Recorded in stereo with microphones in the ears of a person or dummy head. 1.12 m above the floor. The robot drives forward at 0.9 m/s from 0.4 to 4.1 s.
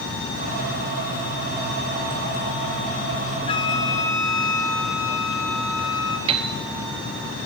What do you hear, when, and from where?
3.5 s a flute: 25° left (ahead or behind), 0.6 m; by 6.2 s 15° left (ahead or behind), 0.9 m
6.3 s a piano: 30° right (ahead or behind), 1.0 m